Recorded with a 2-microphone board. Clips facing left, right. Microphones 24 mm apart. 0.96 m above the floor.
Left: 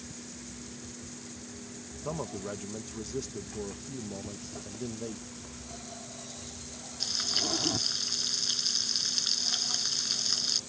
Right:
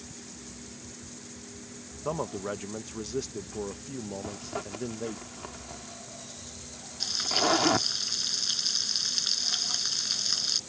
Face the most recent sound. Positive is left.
turn(degrees=-5)  # may be behind; listen again after turning